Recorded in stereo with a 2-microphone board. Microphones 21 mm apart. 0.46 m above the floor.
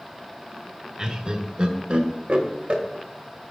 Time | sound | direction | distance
1.0 | laughter | 35° right (ahead or behind) | 1.2 m